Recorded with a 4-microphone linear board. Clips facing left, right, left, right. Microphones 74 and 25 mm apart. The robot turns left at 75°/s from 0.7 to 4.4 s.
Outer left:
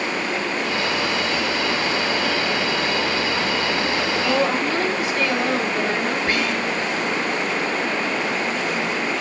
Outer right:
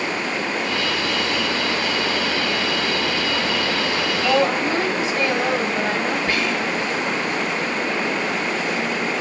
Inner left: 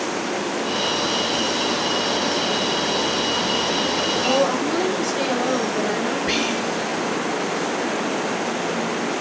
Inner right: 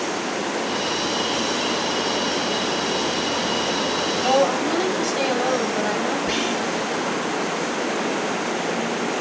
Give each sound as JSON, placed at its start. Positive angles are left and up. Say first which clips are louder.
{"t": 4.2, "sound": "a woman speaking", "louder": "outer right 3 dB, inner right 3 dB", "side_deg": -40, "distance_m": 1.8}
{"t": 6.3, "sound": "whispering", "louder": "even, inner left 1 dB", "side_deg": 35, "distance_m": 1.3}